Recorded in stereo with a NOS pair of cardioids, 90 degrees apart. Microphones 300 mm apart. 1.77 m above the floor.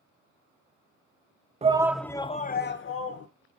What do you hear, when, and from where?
1.6 s a shout: 20° right, 1.0 m; by 3.3 s 55° left, 1.6 m